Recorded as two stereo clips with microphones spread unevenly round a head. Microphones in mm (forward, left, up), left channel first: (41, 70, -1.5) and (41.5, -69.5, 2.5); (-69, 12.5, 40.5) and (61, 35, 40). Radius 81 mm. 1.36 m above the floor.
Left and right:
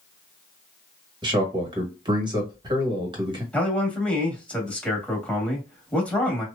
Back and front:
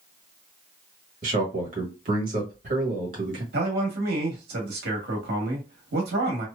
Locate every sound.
1.2 s a man speaking: 30° right, 1.4 m
3.5 s a man speaking: 10° left, 1.3 m